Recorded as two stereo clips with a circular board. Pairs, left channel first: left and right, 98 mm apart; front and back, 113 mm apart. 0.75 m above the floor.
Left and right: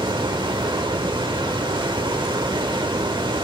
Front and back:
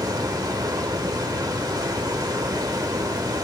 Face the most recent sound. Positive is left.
turn(degrees=-125)